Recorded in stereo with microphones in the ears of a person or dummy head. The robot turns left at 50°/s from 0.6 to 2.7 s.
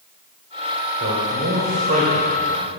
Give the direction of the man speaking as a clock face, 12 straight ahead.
3 o'clock.